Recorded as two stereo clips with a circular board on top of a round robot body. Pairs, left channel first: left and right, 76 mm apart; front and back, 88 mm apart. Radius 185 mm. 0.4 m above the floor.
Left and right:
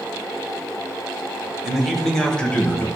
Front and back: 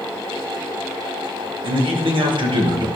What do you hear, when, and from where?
1.6 s a man speaking: 175° right, 2.5 m; by 2.9 s 155° left, 2.5 m